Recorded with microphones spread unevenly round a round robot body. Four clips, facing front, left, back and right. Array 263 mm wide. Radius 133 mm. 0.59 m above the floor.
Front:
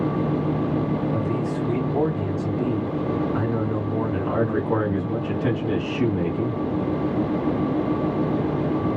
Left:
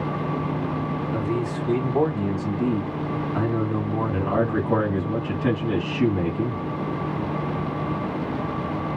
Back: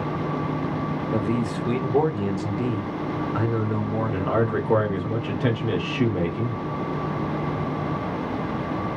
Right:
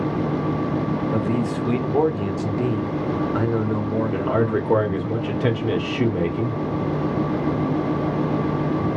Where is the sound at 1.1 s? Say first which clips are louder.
Right 3 dB, even; 140° right, 1.5 m; by 5.1 s 65° right, 2.5 m.